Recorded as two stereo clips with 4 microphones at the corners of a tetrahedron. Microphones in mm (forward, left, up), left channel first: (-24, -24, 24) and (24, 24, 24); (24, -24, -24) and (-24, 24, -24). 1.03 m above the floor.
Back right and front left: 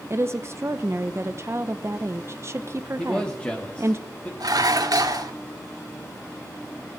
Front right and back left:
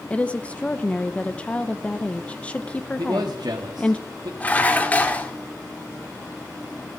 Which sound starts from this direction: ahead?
A woman speaking, at 0.1 s.